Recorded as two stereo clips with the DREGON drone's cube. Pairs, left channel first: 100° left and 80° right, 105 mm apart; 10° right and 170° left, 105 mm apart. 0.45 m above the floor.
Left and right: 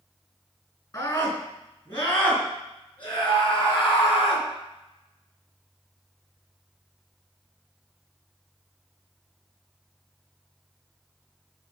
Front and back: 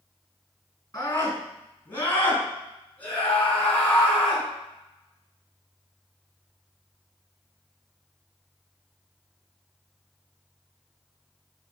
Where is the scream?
50° left, 4.5 m; by 4.5 s 70° left, 5.5 m.